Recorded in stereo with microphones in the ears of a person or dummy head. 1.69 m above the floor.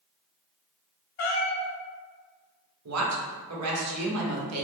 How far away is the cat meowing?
About 1.8 m.